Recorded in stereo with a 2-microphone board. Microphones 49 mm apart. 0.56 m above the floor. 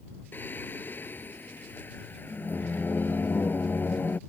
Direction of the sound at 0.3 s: 45° left (ahead or behind).